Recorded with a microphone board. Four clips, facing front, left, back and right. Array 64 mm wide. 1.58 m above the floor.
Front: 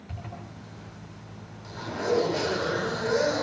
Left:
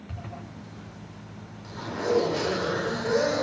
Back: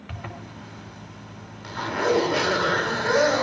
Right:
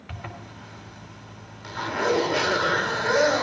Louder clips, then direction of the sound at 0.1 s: Right 3 dB, back 4 dB; 145° right.